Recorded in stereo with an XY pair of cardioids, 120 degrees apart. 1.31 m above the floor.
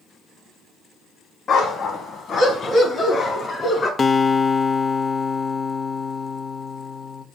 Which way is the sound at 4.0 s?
30° left.